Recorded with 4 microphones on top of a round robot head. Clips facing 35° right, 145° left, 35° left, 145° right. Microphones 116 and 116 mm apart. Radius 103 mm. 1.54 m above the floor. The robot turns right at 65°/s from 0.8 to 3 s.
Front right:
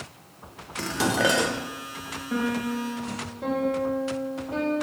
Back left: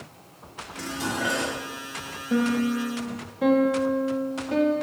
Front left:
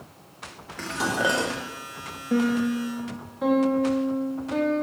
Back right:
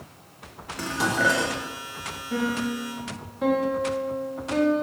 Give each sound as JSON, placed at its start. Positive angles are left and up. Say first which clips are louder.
{"t": 0.8, "sound": "dishes clattering", "louder": "front right 5 dB, back right 1 dB", "azimuth_deg": -65, "distance_m": 0.8}
{"t": 2.3, "sound": "a piano", "louder": "back left 4 dB, front left 4 dB", "azimuth_deg": 80, "distance_m": 2.0}